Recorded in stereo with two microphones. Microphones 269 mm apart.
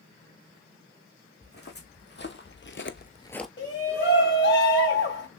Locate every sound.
1.4 s footsteps: 35° left (ahead or behind), 2 m; by 3.5 s centre (ahead or behind), 0.7 m
3.6 s a shout: 40° left (ahead or behind), 2 m